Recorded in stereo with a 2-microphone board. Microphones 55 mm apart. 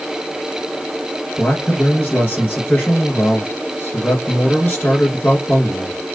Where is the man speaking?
35° left (ahead or behind), 2.0 m.